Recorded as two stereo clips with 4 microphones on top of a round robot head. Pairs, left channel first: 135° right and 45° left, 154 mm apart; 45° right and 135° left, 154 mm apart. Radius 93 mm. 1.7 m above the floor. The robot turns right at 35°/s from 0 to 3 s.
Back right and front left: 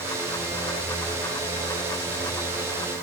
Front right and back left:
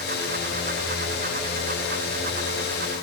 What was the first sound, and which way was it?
Only background noise.